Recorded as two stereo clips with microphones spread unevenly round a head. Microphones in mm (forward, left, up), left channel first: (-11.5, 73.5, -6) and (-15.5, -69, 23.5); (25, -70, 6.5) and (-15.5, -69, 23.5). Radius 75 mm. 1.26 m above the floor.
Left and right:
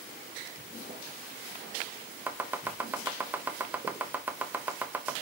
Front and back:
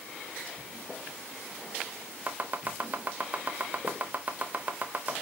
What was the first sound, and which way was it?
Chopping, 160° right.